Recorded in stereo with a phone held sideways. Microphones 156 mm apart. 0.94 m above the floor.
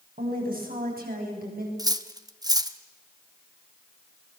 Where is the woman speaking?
70° right (ahead or behind), 7.5 m.